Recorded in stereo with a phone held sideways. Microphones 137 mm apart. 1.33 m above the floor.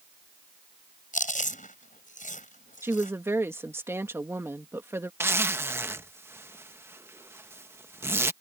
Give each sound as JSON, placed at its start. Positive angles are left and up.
{"t": 1.1, "sound": "chewing", "side_deg": 70}
{"t": 2.8, "sound": "a woman speaking", "side_deg": -20}
{"t": 5.2, "sound": "a zipper", "side_deg": -15}